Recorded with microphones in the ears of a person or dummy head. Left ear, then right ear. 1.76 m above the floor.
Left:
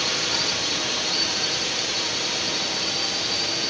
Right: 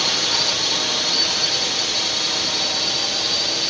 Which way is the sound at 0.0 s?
15° right (ahead or behind).